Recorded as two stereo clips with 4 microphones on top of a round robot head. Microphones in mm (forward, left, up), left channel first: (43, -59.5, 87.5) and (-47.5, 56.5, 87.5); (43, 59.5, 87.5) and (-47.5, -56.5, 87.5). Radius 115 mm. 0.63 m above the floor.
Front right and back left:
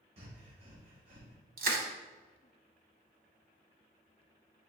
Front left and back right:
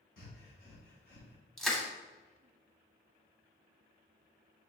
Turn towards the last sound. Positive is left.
turn(degrees=140)